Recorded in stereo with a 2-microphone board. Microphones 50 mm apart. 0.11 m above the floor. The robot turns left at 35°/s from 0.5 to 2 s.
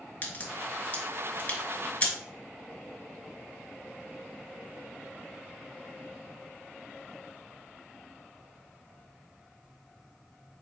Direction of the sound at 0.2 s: 35° left (ahead or behind).